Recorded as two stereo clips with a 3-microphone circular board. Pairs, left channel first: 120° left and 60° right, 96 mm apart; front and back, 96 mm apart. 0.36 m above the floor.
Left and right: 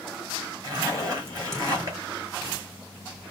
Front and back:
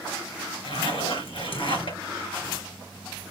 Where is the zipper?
10° right, 4 m.